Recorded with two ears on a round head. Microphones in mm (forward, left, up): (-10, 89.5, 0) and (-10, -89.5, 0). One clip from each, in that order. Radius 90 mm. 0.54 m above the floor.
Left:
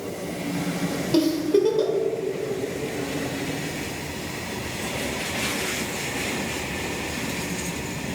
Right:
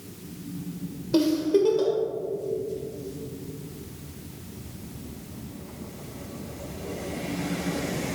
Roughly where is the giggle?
Centre.